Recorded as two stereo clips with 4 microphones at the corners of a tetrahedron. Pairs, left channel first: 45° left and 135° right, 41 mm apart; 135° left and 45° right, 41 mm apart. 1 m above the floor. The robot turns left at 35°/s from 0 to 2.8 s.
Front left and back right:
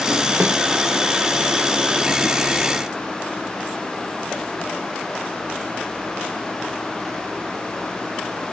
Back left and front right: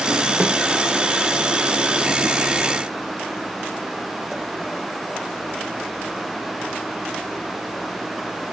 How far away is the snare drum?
About 1.1 m.